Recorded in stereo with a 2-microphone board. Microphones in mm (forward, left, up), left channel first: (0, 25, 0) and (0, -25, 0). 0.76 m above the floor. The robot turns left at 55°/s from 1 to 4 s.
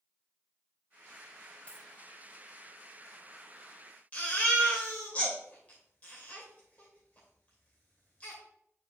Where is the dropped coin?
25° left (ahead or behind), 1.5 m; by 1.9 s 35° left (ahead or behind), 1.5 m.